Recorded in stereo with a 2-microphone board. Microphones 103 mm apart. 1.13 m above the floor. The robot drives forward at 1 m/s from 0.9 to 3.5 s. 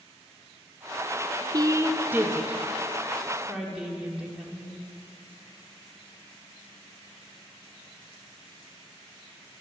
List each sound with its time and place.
1.5 s a woman speaking: 40° right (ahead or behind), 0.6 m; by 4.8 s 10° right (ahead or behind), 2.5 m